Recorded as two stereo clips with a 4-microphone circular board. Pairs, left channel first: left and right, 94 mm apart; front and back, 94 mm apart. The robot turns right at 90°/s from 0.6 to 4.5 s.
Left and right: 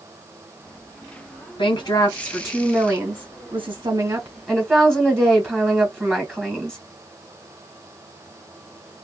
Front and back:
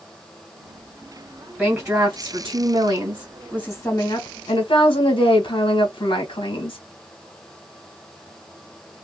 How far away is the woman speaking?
About 1.1 m.